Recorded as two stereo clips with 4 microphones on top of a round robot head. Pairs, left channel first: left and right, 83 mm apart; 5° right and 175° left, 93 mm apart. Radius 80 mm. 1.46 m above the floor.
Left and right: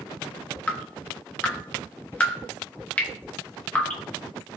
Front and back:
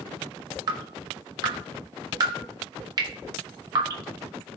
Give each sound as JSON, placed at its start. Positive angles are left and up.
{"t": 0.7, "sound": "dripping", "azimuth_deg": 150, "distance_m": 0.9}